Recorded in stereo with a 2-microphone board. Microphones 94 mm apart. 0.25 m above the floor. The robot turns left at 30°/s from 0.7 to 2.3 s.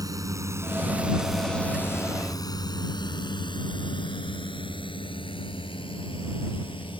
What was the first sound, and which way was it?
A drone, 40° right (ahead or behind).